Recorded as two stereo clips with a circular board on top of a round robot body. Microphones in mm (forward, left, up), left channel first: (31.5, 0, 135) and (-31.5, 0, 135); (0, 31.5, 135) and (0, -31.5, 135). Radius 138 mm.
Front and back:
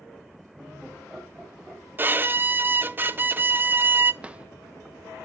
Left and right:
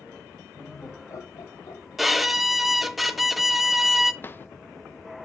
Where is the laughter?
100° left, 2.5 m; by 1.8 s 110° left, 3 m.